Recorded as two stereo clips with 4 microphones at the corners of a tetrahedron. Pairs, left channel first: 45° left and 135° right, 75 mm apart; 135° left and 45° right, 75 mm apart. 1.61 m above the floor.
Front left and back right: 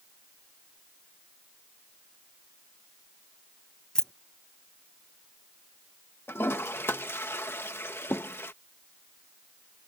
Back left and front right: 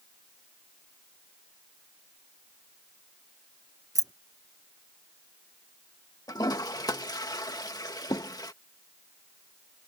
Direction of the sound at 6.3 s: 105° left.